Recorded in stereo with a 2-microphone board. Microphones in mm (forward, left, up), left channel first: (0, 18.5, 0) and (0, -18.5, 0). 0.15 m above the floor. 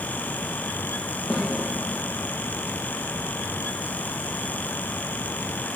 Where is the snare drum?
50° left (ahead or behind), 4 m.